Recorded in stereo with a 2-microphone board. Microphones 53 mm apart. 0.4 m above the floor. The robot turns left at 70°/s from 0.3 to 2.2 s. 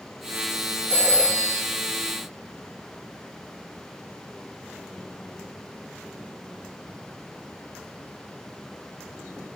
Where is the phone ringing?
130° right, 1.8 m; by 1.6 s straight behind, 1.8 m.